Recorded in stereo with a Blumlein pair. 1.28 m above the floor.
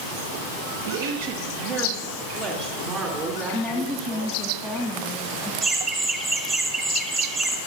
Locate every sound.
0.9 s a woman speaking: 55° right, 0.9 m; by 4.5 s 30° right, 4.5 m
3.5 s a woman speaking: straight ahead, 1.7 m
5.6 s laughter: 20° right, 2.5 m